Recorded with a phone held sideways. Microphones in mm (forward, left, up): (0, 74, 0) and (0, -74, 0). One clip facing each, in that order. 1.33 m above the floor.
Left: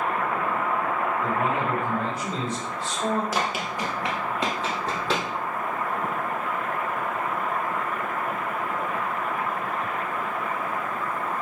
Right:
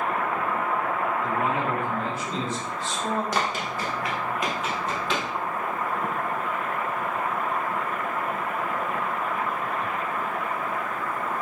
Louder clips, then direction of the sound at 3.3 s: Even; centre (ahead or behind).